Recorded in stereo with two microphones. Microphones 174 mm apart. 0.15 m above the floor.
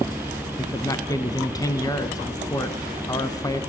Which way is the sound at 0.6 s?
20° left (ahead or behind).